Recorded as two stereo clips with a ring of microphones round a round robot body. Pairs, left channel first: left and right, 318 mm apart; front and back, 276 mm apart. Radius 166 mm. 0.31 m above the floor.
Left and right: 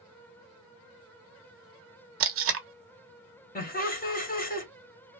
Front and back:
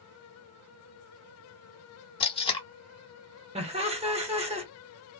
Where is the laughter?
130° left, 1.3 m.